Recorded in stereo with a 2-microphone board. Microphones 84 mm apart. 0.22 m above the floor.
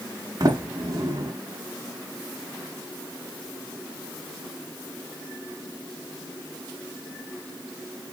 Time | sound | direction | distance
0.4 | a sliding door | 50° right (ahead or behind) | 1.0 m